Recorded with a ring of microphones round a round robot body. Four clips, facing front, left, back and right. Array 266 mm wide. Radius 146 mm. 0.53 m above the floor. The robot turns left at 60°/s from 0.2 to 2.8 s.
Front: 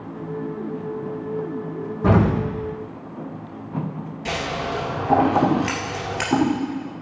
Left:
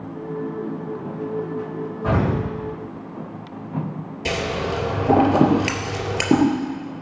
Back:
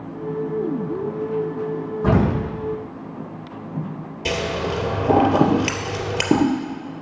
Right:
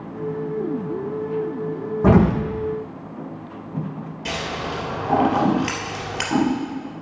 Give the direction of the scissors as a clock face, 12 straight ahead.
7 o'clock.